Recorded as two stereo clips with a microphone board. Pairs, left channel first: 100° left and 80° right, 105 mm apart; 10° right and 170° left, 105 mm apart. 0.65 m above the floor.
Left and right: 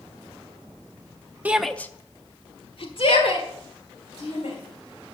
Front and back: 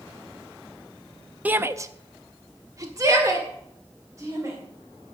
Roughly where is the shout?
Behind right.